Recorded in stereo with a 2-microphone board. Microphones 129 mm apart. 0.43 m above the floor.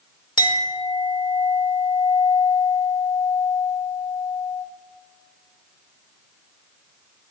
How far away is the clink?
About 0.9 m.